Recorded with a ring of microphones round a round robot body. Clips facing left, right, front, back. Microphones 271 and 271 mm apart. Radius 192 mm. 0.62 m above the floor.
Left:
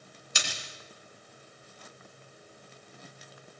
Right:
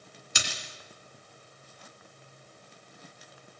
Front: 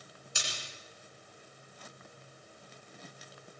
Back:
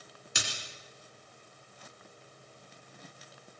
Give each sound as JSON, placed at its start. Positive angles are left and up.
{"t": 0.3, "sound": "a splash", "azimuth_deg": -125, "distance_m": 2.5}